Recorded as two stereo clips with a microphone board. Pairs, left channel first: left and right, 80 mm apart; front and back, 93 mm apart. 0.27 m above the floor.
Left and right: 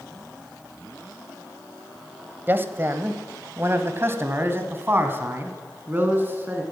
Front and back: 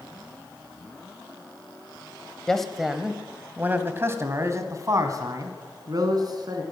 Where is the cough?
No cough in this recording.